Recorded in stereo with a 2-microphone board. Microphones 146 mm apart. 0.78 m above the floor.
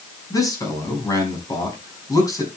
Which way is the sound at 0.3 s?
25° left (ahead or behind).